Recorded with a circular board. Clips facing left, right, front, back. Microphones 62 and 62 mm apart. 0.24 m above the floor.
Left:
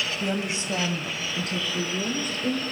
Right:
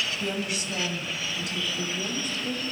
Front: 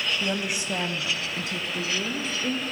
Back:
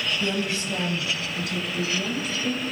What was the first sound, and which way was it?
A woman speaking, 55° left.